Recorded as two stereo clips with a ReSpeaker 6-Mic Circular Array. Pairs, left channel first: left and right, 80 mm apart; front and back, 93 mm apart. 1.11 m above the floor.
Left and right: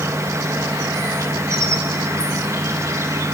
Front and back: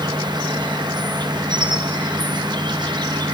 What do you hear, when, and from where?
0.0 s an insect: 140° right, 1.1 m